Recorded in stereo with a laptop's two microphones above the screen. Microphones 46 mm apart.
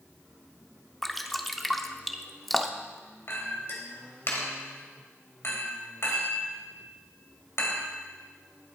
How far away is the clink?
About 3 m.